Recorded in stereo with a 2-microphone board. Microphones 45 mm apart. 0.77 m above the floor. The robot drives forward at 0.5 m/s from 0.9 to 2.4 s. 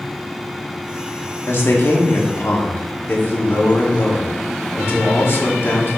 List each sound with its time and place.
1.5 s a man speaking: 60° left (ahead or behind), 1.7 m; by 6.0 s 55° left (ahead or behind), 1.8 m